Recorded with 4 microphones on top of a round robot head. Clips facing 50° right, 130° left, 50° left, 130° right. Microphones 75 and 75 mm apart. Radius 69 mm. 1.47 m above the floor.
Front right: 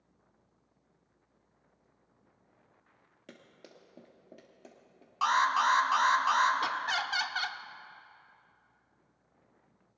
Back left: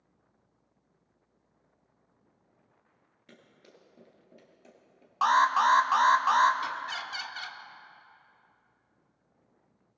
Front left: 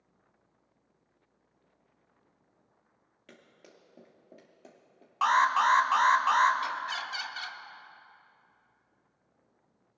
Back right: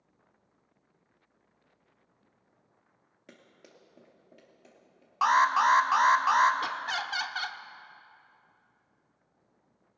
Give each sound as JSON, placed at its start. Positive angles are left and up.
{"t": 3.3, "sound": "running footsteps", "azimuth_deg": -60, "distance_m": 2.0}
{"t": 5.2, "sound": "an alarm", "azimuth_deg": 155, "distance_m": 1.1}
{"t": 6.6, "sound": "laughter", "azimuth_deg": -90, "distance_m": 0.8}